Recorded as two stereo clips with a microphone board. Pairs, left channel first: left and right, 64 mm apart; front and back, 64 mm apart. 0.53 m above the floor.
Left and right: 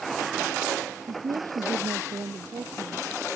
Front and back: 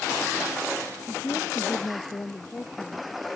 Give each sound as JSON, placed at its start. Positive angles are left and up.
{"t": 1.1, "sound": "a woman speaking", "azimuth_deg": -65}